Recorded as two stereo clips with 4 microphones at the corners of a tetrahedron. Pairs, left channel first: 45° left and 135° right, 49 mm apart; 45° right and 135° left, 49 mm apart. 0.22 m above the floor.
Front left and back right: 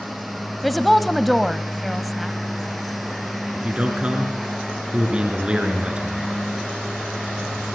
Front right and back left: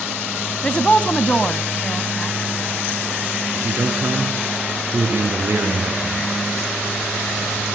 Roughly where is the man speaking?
Behind.